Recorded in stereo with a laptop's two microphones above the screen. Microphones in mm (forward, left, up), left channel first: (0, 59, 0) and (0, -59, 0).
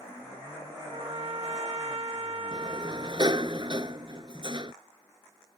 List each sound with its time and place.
0.9 s a trumpet: 50° right (ahead or behind)
2.5 s a sliding door: 40° right (ahead or behind)